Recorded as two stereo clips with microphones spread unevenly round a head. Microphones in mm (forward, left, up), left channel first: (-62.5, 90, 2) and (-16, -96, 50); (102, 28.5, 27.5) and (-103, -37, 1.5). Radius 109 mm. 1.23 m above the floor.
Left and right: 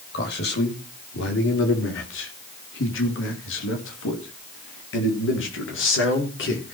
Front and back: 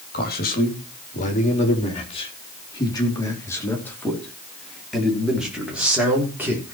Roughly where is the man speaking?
Ahead left.